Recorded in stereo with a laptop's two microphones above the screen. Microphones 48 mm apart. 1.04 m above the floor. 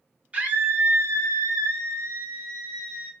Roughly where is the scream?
Right.